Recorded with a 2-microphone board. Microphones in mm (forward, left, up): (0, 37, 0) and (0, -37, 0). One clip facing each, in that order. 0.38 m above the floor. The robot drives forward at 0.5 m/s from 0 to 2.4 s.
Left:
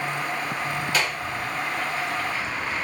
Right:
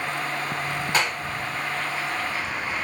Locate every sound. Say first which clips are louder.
0.9 s a clap: right 3 dB; 25° right (ahead or behind), 2.5 m; by 1.2 s 30° right (ahead or behind), 2.5 m